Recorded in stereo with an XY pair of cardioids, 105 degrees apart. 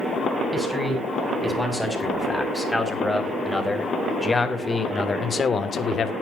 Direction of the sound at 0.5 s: Straight ahead.